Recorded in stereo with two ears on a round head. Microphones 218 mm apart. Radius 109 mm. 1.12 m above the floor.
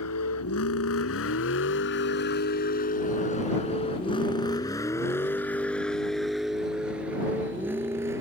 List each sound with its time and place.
0.0 s a vehicle: 70° left (ahead or behind); by 8.2 s 10° right (ahead or behind)